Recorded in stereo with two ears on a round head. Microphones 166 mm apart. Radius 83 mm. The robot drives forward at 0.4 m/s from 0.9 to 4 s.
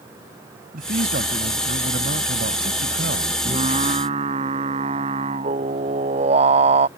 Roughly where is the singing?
Right.